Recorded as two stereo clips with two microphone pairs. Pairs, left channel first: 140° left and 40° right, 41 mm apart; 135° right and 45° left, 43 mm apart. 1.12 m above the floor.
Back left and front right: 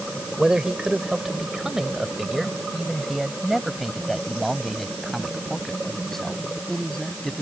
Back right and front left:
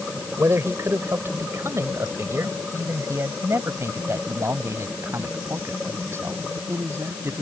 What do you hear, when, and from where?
0.4 s a man speaking: 35° left; by 7.4 s 65° left